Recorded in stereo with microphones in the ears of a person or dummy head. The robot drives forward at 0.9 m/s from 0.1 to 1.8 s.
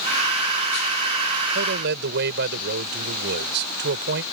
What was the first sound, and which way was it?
A man speaking, 60° right (ahead or behind).